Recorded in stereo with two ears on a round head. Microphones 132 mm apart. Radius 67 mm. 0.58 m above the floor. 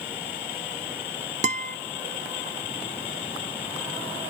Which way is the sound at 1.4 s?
50° right (ahead or behind).